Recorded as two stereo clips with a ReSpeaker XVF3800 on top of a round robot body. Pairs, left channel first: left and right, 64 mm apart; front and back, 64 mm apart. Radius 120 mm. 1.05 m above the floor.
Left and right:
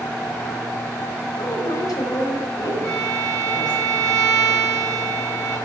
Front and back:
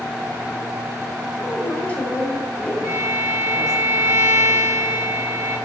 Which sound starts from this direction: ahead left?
A woman speaking, at 1.4 s.